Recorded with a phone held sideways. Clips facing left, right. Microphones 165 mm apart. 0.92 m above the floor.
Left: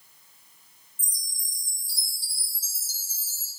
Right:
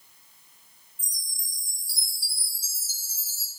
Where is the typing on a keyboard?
No typing on a keyboard in this recording.